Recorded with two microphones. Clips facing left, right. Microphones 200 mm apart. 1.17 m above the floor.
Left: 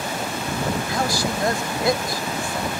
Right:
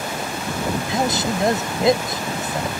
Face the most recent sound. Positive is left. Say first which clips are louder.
# right 2 dB
turn(degrees=-20)  # may be behind; listen again after turning